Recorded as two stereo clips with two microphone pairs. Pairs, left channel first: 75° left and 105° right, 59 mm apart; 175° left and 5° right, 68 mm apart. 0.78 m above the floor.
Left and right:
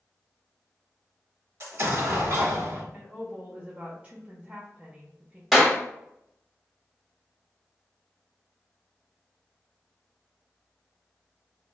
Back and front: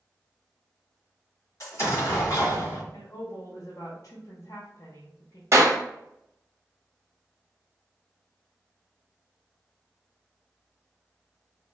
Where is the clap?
20° right, 1.0 m.